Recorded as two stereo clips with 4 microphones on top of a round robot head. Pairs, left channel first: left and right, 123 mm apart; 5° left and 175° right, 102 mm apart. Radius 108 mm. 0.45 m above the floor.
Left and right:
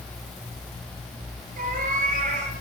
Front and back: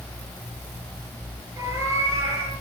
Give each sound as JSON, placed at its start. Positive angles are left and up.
{"t": 1.6, "sound": "a cat meowing", "azimuth_deg": -105, "distance_m": 5.5}